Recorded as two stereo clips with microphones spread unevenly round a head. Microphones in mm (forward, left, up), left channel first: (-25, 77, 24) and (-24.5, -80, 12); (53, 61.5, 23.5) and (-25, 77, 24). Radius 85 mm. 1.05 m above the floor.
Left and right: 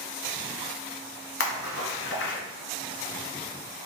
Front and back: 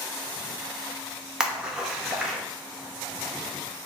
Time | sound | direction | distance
1.4 | a splash | 90° left | 1.0 m